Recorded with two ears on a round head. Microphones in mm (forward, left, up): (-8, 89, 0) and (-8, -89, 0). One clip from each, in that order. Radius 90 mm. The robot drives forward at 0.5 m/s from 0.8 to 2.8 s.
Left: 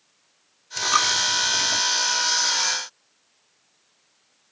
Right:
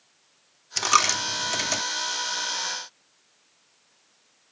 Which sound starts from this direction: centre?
A dropped coin, at 0.8 s.